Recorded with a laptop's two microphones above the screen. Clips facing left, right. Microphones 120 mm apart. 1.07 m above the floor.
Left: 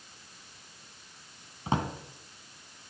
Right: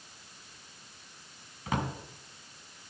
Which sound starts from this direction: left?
A drawer, at 1.7 s.